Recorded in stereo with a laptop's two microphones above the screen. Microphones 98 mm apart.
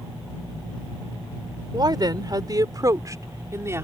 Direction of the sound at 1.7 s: 45° right (ahead or behind).